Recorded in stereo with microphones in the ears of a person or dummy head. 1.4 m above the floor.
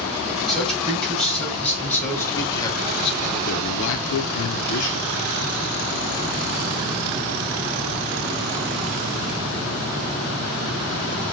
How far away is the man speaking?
About 2.0 m.